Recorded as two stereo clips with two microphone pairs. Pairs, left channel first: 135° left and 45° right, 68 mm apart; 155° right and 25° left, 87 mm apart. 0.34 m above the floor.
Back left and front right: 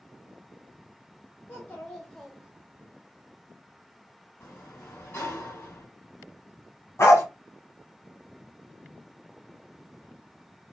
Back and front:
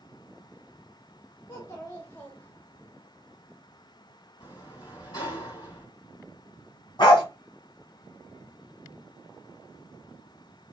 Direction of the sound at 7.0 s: Straight behind.